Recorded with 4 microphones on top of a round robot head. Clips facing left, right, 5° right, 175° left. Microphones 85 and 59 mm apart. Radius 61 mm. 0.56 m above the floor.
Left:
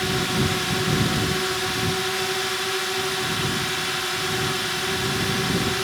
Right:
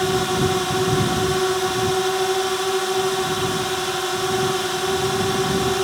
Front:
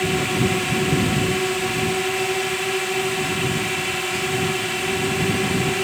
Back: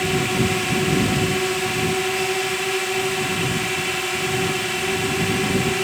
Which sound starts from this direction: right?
A drone, at 0.0 s.